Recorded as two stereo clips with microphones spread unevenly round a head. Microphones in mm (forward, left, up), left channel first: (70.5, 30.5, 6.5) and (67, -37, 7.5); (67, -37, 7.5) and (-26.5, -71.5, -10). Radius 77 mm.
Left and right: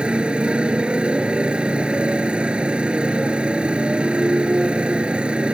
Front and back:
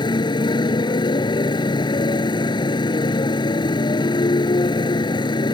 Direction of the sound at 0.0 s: 20° right.